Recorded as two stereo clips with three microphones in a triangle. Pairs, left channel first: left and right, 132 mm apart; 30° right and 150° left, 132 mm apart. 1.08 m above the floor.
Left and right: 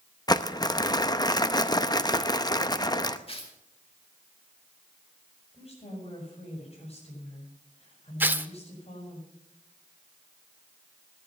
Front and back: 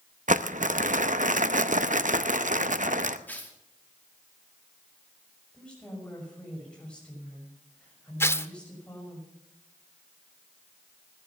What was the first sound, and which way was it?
Crumpling, 145° left.